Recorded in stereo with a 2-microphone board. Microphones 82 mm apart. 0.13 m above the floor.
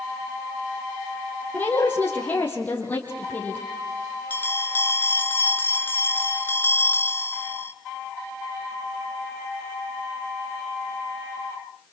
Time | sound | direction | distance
1.5 | a woman speaking | 20° left (ahead or behind) | 4 m
4.3 | a bell | 25° left (ahead or behind) | 1.5 m